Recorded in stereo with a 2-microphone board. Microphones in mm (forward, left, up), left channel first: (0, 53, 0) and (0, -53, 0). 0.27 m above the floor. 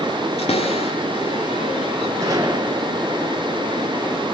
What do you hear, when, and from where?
0.4 s a cupboard door: 75° left (ahead or behind), 5.5 m
2.2 s a gunshot: 35° right (ahead or behind), 4.5 m